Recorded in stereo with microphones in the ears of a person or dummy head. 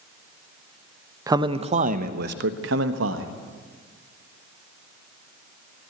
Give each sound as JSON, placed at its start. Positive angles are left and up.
{"t": 1.3, "sound": "a man speaking", "side_deg": -20, "distance_m": 0.9}